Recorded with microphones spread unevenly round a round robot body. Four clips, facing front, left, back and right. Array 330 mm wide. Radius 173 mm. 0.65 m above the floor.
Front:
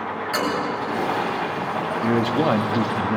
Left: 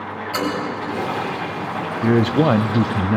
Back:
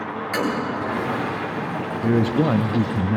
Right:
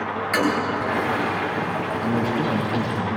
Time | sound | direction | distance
0.3 | a toilet flushing | 125° right | 3 m
2.0 | a man speaking | 85° left | 0.6 m